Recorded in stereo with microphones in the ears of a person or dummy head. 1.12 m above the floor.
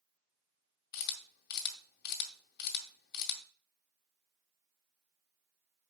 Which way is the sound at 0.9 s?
55° left (ahead or behind).